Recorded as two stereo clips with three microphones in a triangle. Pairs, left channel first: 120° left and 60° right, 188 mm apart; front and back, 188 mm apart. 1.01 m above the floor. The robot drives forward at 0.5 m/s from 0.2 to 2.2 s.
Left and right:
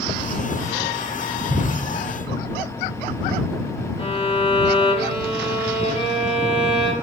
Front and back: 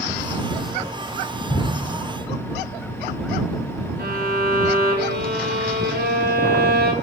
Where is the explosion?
70° left, 1.3 m; by 1.9 s 80° left, 1.2 m.